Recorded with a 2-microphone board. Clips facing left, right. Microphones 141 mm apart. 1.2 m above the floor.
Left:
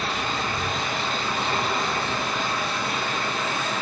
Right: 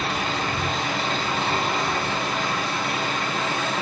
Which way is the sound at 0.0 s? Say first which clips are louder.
Right 2 dB; 75° right (ahead or behind).